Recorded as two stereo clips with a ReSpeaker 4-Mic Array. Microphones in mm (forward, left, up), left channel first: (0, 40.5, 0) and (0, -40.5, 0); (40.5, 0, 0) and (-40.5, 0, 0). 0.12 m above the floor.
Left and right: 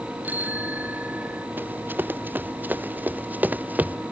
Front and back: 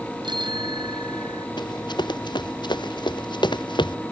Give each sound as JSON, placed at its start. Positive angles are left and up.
{"t": 0.2, "sound": "a bicycle bell", "azimuth_deg": -160}
{"t": 1.6, "sound": "running footsteps", "azimuth_deg": -25}